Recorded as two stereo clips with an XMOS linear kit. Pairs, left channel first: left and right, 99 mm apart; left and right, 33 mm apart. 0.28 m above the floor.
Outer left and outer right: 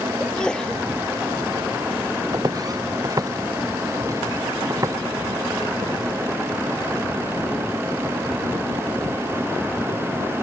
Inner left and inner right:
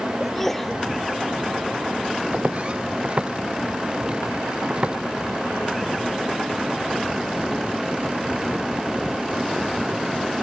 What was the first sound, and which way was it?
A sneeze, 10° left (ahead or behind).